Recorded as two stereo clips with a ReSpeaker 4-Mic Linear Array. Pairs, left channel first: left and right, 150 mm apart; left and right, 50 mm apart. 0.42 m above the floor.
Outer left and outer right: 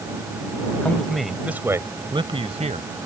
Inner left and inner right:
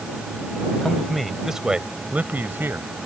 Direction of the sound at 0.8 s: 10° left (ahead or behind).